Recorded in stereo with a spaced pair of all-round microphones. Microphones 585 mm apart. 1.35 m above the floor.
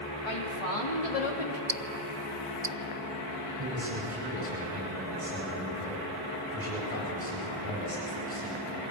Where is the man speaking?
25° right (ahead or behind), 9 m.